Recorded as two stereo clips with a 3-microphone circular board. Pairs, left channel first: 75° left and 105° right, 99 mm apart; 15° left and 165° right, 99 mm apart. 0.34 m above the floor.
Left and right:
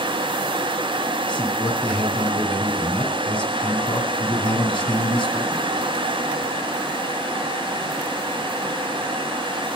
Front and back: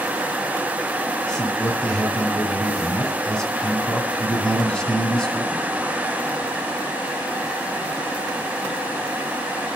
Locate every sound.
1.3 s a man speaking: 100° left, 2 m